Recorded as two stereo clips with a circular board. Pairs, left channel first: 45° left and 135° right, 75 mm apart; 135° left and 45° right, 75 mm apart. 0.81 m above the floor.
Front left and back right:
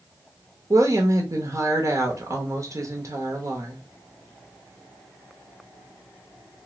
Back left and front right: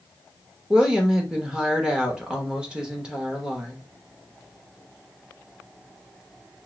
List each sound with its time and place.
0.7 s a woman speaking: 120° right, 0.9 m